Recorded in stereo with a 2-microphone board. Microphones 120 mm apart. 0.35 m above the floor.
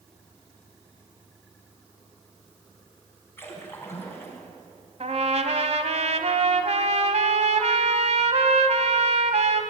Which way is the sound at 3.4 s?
20° left (ahead or behind).